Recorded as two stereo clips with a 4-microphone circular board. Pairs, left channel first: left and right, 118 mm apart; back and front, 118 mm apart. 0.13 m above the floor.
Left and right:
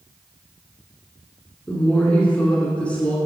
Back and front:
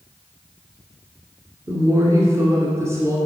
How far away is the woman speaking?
About 1.4 m.